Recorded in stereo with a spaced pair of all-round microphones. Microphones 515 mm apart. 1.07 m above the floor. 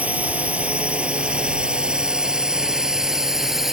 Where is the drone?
5° right (ahead or behind); by 3.7 s centre (ahead or behind).